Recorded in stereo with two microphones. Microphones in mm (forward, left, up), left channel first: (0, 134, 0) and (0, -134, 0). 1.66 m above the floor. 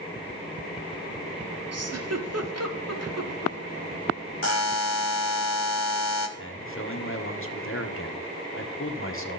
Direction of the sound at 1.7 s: 65° right (ahead or behind).